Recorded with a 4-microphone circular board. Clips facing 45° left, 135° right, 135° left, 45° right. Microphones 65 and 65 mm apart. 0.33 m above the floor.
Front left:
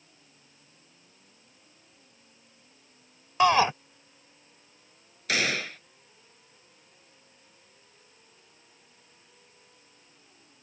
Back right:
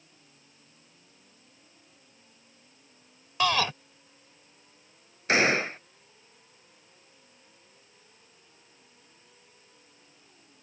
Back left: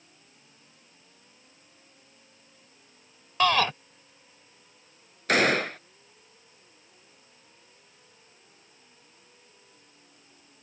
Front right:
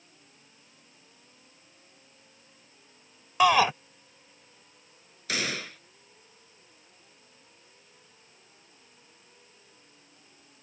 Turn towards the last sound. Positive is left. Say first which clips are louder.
# back right 5 dB, back left 10 dB
turn(degrees=170)